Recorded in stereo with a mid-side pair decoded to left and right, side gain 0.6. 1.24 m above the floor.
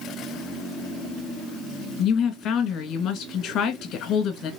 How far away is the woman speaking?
About 1.5 m.